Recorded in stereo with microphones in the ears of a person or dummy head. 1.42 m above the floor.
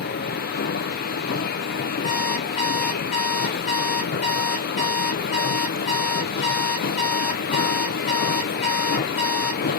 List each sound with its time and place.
0.0 s a machine running: 50° left (ahead or behind), 0.8 m
2.0 s an alarm clock: 30° left (ahead or behind), 0.8 m